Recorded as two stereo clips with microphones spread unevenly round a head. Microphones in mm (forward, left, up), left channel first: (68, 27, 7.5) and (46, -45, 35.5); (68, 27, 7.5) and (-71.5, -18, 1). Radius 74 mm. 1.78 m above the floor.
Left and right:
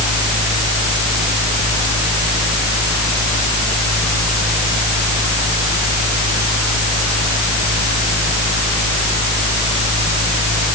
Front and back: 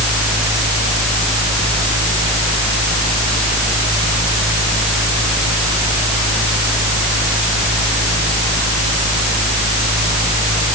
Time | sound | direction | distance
0.0 | a fan | 75° right | ?